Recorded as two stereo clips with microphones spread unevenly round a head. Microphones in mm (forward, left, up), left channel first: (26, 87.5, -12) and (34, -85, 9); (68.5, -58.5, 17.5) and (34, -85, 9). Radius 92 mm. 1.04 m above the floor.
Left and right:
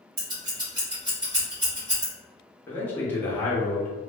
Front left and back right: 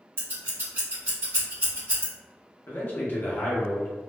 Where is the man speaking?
30° left, 0.7 m.